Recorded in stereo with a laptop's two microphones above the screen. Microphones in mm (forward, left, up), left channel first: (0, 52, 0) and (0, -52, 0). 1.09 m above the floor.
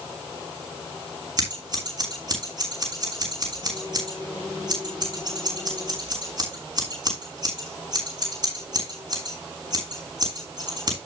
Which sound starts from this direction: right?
Scissors, at 1.4 s.